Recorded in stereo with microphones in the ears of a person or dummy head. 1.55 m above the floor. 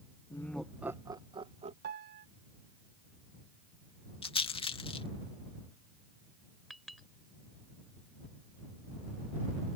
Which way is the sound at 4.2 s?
30° left (ahead or behind).